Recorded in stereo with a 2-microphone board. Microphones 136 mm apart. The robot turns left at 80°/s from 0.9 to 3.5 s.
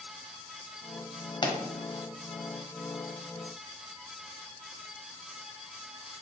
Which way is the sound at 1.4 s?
35° left (ahead or behind).